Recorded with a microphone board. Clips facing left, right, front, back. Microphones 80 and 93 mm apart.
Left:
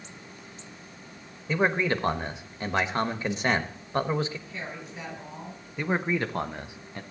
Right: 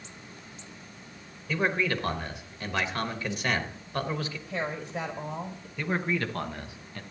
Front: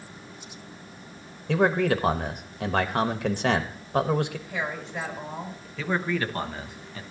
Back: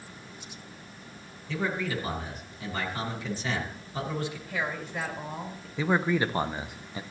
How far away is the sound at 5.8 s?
About 0.7 m.